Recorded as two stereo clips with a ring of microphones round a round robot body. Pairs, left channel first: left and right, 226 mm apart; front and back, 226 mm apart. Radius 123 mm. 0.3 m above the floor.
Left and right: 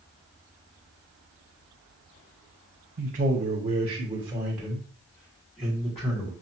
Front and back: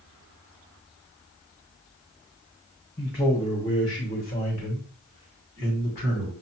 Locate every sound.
3.0 s a man speaking: 60° right, 1.8 m; by 6.3 s 40° left, 2 m